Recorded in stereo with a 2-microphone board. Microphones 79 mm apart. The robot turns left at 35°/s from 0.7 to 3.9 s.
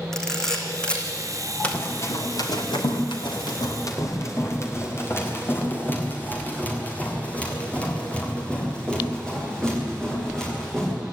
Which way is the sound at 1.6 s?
20° left (ahead or behind).